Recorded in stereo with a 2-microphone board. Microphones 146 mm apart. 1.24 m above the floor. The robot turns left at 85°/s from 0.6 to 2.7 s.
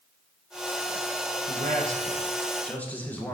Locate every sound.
1.5 s a man speaking: 85° right, 1.2 m; by 3.3 s 170° left, 1.2 m